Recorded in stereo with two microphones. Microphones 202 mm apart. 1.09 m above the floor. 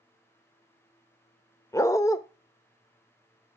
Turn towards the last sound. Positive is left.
turn(degrees=15)  # may be behind; listen again after turning